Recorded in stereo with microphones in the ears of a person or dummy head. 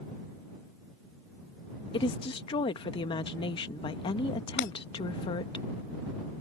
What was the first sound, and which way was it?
A woman speaking, 35° left (ahead or behind).